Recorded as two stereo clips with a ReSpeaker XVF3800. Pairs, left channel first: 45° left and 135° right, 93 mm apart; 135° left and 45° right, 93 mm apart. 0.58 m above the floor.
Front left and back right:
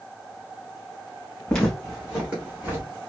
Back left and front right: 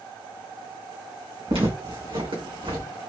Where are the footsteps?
40° right, 2.5 m; by 2.9 s 70° right, 3 m.